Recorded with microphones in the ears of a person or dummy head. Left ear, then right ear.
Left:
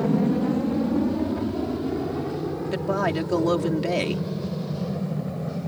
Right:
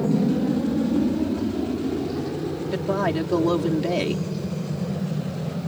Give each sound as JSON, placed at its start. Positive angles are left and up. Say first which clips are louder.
{"t": 0.0, "sound": "an aircraft", "louder": "even", "side_deg": 40}
{"t": 2.7, "sound": "a woman speaking", "louder": "right 1 dB", "side_deg": 20}